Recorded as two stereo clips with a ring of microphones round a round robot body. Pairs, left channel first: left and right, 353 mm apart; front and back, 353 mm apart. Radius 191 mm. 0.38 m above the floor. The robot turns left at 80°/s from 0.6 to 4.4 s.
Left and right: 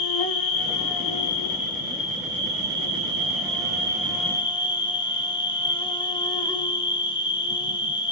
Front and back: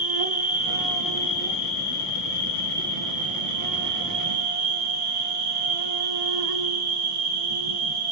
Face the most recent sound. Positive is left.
turn(degrees=165)